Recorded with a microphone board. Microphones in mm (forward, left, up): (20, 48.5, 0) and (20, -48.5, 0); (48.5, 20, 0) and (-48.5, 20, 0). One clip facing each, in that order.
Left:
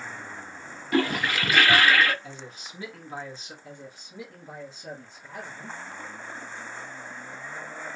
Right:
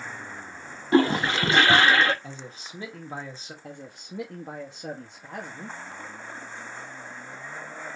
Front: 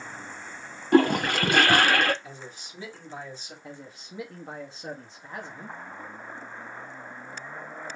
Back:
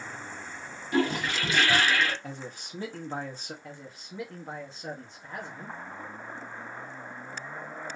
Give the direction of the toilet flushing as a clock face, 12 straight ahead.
1 o'clock.